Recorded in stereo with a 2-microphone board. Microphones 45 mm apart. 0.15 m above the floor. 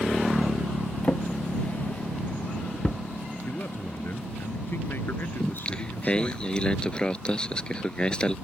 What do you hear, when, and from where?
1.0 s a drawer: 30° left (ahead or behind)
3.5 s a man speaking: 50° left (ahead or behind)
5.4 s singing: 20° left (ahead or behind)